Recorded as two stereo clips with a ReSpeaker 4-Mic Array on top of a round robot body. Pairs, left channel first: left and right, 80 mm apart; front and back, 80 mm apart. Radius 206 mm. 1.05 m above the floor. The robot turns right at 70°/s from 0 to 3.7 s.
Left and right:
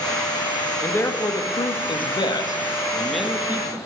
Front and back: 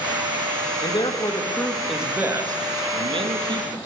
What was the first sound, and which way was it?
A man speaking, 15° left.